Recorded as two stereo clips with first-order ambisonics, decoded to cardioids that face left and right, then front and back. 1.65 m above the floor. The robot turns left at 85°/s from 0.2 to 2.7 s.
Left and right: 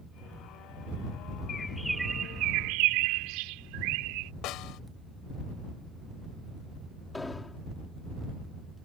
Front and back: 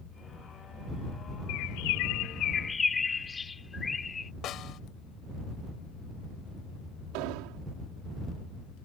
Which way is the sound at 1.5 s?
30° left.